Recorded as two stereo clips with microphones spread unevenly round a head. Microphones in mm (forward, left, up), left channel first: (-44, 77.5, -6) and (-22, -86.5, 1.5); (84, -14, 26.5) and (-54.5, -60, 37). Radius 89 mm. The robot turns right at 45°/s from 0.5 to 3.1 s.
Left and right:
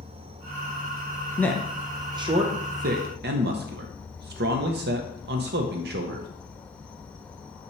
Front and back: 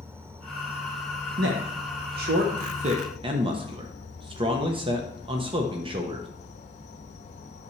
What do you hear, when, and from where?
0.0 s an insect: 100° right, 0.7 m; by 7.7 s 15° left, 0.7 m
1.4 s a man speaking: 175° left, 0.8 m; by 6.3 s 105° right, 0.8 m